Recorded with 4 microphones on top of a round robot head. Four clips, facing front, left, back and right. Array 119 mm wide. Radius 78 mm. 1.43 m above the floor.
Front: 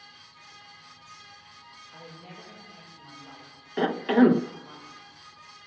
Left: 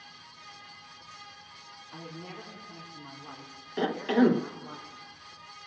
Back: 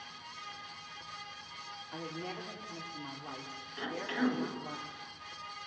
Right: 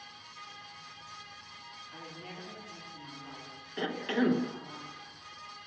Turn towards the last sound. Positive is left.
turn(degrees=20)